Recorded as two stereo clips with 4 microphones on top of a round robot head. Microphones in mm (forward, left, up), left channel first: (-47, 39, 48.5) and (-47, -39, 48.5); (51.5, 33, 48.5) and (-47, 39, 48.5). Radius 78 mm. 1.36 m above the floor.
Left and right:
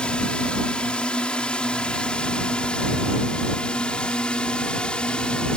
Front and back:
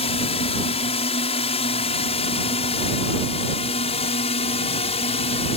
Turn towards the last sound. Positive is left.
turn(degrees=10)